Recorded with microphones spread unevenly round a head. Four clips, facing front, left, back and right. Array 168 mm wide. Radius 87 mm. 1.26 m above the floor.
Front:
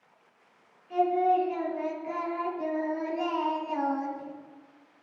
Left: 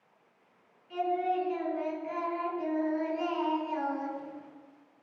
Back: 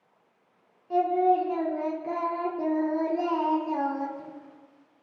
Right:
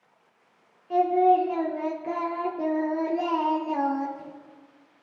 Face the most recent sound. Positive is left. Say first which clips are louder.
# right 10 dB, back 2 dB
turn(degrees=-125)